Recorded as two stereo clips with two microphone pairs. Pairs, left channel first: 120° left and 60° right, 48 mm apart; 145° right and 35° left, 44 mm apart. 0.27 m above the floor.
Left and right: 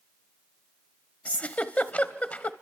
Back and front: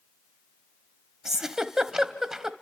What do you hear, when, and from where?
1.2 s a giggle: 105° left, 1.0 m